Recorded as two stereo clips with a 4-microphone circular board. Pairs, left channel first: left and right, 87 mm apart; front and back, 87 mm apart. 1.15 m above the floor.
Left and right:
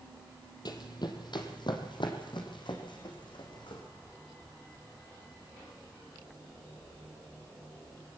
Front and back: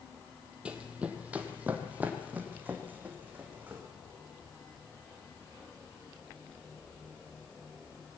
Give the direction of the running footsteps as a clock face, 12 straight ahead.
8 o'clock.